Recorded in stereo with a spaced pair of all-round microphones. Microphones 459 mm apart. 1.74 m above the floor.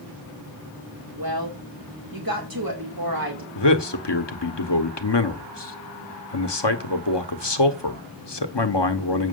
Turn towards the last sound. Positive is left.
turn(degrees=60)  # may be behind; listen again after turning